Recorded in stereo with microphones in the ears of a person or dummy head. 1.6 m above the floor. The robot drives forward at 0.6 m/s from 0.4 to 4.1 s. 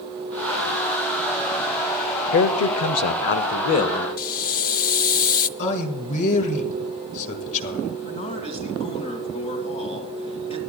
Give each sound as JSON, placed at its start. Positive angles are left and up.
{"t": 2.3, "sound": "a man speaking", "side_deg": 60, "distance_m": 0.6}
{"t": 4.2, "sound": "a hiss", "side_deg": 45, "distance_m": 0.6}
{"t": 5.6, "sound": "a man speaking", "side_deg": 35, "distance_m": 1.5}
{"t": 8.0, "sound": "a man speaking", "side_deg": 35, "distance_m": 2.0}